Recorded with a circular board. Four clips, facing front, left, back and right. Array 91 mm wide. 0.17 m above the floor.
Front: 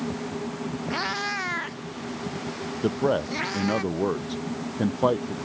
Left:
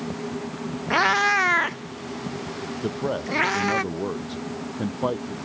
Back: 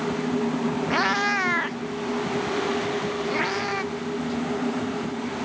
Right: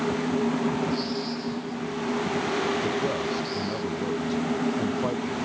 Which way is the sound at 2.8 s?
15° left.